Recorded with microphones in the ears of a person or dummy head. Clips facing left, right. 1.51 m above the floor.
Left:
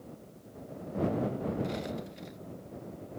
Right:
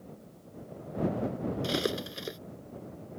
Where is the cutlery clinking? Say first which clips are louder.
Right 5 dB; 80° right.